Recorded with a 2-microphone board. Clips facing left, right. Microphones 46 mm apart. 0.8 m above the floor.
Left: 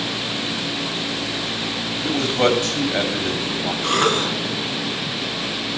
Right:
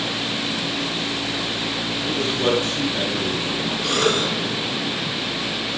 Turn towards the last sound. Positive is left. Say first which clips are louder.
# left 2 dB
turn(degrees=35)  # may be behind; listen again after turning